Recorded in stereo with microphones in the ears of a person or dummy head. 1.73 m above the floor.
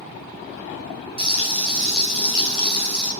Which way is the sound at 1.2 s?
55° right (ahead or behind).